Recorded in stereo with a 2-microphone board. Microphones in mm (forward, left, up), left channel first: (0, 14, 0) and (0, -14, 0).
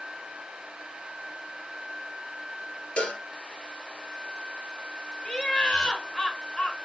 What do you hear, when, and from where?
3.0 s a cowbell: 55° left (ahead or behind), 1.8 m
5.2 s laughter: 30° left (ahead or behind), 2 m